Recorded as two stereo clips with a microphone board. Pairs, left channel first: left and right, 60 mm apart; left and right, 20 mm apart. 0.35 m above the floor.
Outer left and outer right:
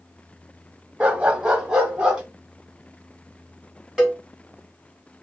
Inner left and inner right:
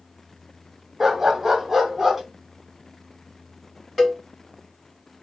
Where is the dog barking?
20° right (ahead or behind), 0.6 m; by 2.2 s 10° right (ahead or behind), 1.3 m.